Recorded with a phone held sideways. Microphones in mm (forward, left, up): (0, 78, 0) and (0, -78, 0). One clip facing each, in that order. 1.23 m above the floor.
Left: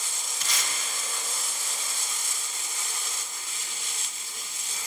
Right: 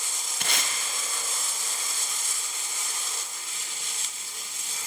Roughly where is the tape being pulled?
Right.